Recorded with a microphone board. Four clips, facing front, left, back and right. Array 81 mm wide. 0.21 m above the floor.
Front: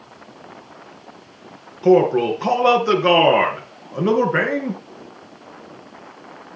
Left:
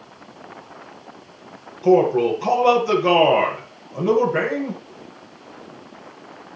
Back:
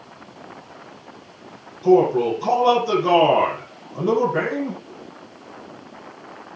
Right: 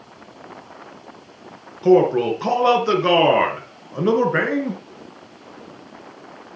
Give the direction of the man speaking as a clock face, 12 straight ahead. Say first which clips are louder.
Right 1 dB, front 1 dB; 1 o'clock.